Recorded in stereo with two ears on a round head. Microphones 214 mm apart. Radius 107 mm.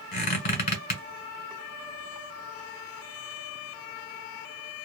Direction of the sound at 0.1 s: 40° left (ahead or behind).